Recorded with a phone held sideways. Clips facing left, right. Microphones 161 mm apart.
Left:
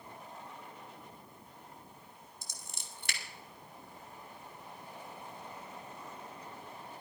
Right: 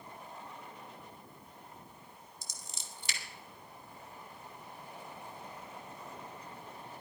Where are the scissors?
60° left (ahead or behind), 2.5 m.